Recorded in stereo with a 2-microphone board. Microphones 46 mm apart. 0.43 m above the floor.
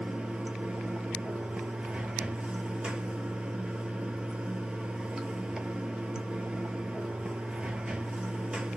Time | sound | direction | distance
0.0 | running water | 20° right (ahead or behind) | 0.8 m